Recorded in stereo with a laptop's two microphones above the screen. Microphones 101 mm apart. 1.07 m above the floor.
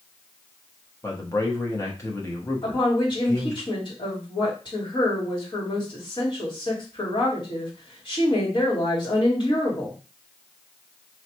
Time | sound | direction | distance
1.0 | a man speaking | 30° left (ahead or behind) | 1.0 m
2.6 | a woman speaking | 45° left (ahead or behind) | 2 m